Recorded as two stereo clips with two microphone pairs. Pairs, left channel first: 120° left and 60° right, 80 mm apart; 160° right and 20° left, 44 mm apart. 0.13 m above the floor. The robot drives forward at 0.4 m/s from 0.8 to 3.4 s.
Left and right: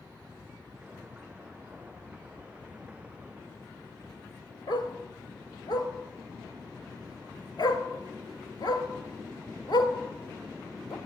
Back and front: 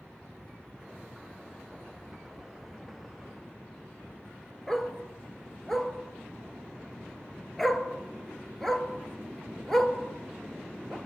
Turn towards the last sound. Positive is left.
turn(degrees=115)